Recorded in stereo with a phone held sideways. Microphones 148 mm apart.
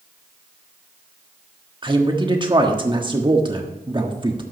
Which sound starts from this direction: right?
A man speaking, at 1.8 s.